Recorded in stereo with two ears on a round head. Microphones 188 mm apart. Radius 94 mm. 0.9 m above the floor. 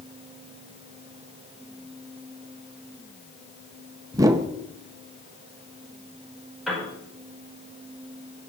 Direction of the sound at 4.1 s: 15° right (ahead or behind).